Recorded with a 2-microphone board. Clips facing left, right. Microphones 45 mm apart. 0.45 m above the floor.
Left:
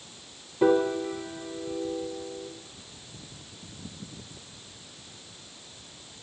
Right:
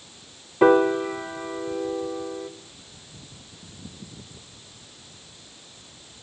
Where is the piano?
55° right (ahead or behind), 0.9 m.